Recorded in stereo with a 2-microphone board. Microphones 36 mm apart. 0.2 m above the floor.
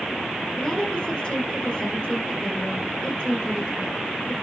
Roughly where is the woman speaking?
Centre.